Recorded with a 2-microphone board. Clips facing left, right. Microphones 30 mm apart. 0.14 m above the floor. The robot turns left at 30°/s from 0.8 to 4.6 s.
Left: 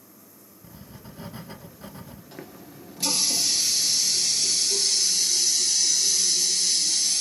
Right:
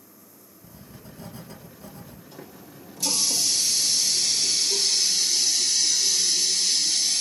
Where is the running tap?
55° left, 1.5 m; by 7.2 s 10° right, 1.5 m.